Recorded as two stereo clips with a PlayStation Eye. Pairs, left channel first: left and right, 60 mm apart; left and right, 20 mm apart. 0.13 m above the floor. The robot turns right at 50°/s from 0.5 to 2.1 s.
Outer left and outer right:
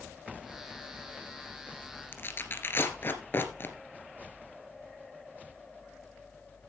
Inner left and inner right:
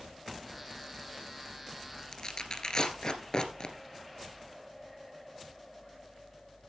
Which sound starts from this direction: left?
Tearing paper, at 2.1 s.